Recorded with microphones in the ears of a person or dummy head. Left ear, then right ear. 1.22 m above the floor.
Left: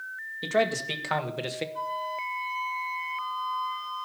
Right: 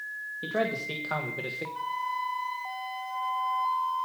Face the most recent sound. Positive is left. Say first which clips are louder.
# right 3 dB
turn(degrees=0)  # may be behind; listen again after turning